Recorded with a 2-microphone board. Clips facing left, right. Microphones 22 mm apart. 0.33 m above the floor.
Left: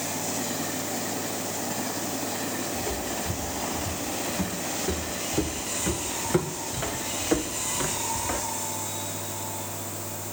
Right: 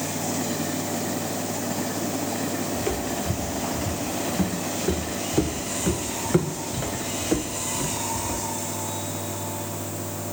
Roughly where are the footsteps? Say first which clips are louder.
Right 3 dB; right.